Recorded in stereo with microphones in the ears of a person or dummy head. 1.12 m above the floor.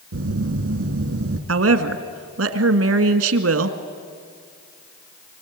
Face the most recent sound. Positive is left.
turn(degrees=-75)  # may be behind; listen again after turning